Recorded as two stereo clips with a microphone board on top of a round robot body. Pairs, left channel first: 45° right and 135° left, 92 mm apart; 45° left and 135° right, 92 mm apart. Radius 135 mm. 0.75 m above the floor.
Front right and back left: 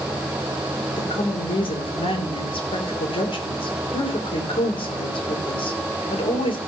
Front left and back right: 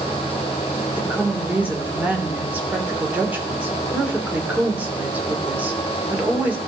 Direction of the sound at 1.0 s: 65° right.